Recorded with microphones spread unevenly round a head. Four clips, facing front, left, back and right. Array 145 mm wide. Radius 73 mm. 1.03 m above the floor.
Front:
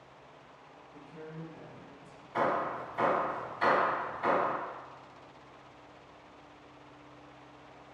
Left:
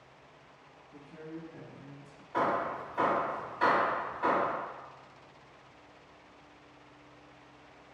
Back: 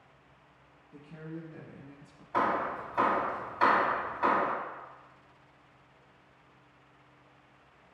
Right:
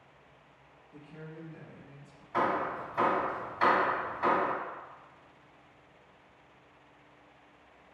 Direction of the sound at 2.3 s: 175° right.